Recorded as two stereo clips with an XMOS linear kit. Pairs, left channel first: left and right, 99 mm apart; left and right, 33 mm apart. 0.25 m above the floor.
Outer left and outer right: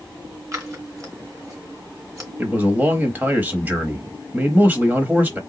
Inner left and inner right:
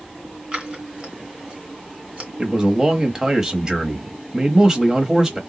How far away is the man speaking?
About 0.9 m.